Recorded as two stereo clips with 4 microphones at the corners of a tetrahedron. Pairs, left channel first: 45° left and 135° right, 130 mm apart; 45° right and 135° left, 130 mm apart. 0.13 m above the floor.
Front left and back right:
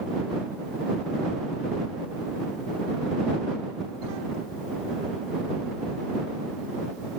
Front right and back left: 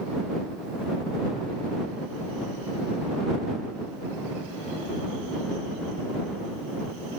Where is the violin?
I don't hear a violin.